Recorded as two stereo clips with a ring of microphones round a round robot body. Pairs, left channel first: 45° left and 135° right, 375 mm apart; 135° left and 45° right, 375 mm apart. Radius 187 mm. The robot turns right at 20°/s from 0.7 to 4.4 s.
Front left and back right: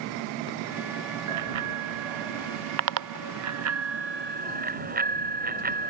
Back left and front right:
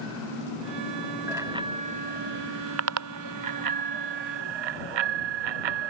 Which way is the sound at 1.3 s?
130° right.